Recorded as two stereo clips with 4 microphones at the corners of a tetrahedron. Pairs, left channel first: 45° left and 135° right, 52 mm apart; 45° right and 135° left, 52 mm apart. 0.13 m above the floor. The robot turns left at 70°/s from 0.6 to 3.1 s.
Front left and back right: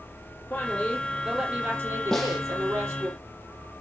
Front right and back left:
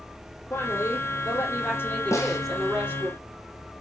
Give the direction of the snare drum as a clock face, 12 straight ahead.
1 o'clock.